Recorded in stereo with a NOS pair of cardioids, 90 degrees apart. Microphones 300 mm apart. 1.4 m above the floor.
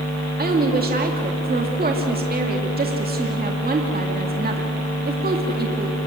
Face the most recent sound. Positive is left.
turn(degrees=-30)